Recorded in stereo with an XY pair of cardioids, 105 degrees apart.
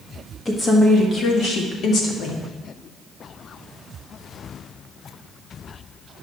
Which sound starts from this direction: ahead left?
A woman speaking, at 0.5 s.